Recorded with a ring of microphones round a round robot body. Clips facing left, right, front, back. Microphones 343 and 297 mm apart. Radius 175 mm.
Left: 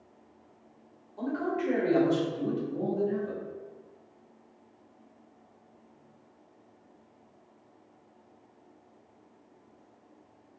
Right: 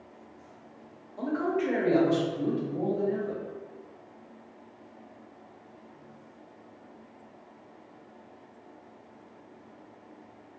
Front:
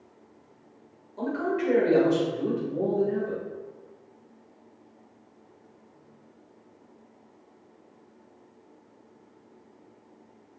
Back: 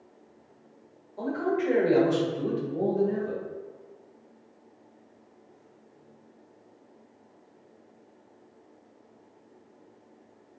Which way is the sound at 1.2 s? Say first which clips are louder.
Right 2 dB, even; 20° left.